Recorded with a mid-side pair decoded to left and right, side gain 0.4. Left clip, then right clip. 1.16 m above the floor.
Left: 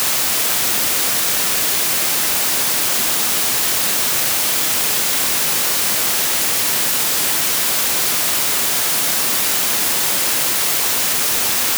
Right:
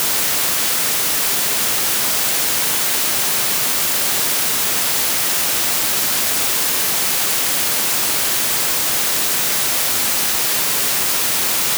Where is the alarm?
I don't hear an alarm.